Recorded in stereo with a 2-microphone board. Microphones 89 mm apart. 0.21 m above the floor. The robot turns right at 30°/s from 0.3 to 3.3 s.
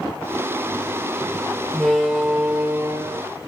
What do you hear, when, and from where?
1.7 s a door slam: 170° left, 2.5 m; by 3.2 s 145° right, 2.5 m